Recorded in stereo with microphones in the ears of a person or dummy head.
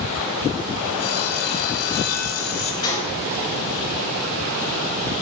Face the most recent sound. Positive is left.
turn(degrees=40)  # may be behind; listen again after turning